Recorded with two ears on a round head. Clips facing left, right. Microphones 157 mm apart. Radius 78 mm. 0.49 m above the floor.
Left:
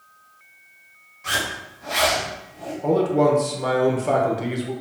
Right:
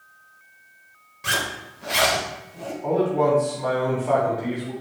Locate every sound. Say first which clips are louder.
1.2 s a zipper: even; 70° right (ahead or behind), 1.0 m
2.8 s a man speaking: left 2 dB; 50° left (ahead or behind), 1.1 m